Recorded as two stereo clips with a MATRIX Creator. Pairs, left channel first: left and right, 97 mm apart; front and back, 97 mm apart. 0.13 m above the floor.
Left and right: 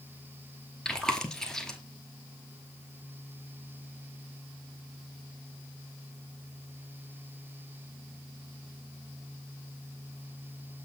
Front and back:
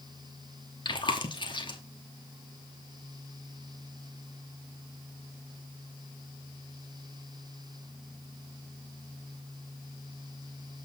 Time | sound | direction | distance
0.8 | chewing | 10° left | 1.1 m